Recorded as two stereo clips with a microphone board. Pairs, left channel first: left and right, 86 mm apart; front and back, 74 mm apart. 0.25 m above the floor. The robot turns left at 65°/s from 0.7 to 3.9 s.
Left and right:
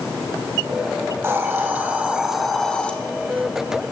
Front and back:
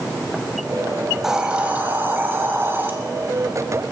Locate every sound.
1.2 s a hiss: 100° right, 1.6 m; by 2.9 s 150° left, 1.6 m